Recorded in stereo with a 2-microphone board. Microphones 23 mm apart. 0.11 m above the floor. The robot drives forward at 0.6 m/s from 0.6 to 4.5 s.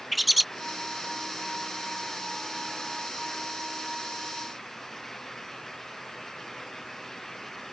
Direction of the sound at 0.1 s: Centre (ahead or behind).